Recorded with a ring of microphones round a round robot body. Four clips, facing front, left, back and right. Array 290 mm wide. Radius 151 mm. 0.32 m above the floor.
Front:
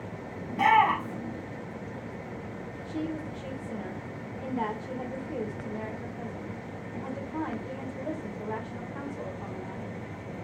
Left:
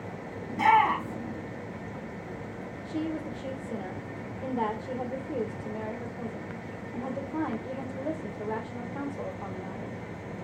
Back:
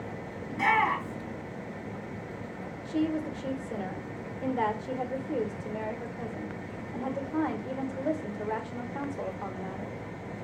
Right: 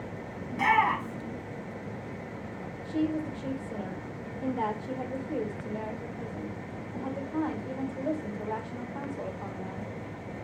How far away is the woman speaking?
About 1.3 m.